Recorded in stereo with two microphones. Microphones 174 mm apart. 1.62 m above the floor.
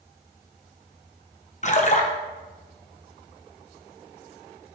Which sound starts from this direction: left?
A splash, at 1.6 s.